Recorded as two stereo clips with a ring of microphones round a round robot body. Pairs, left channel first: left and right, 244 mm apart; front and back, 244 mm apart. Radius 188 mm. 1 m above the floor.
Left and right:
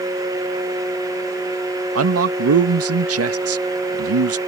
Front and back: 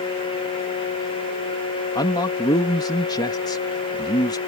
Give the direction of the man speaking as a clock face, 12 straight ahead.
3 o'clock.